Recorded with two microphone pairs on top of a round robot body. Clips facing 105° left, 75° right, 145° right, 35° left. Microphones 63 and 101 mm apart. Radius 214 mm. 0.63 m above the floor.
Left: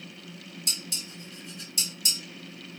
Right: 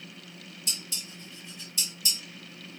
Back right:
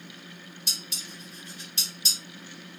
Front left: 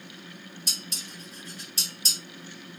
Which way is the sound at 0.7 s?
85° left.